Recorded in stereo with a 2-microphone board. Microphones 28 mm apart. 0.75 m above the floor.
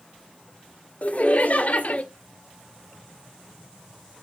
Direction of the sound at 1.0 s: 50° left (ahead or behind).